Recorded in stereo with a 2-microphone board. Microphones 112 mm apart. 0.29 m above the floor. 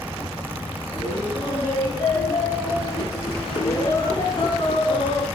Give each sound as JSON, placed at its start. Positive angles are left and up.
{"t": 0.9, "sound": "laughter", "side_deg": 30, "distance_m": 5.0}